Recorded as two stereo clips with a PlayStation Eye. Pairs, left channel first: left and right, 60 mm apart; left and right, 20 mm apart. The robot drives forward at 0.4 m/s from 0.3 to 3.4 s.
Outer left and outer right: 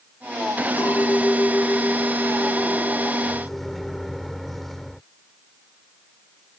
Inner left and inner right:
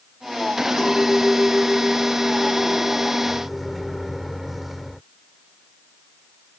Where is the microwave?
Centre (ahead or behind).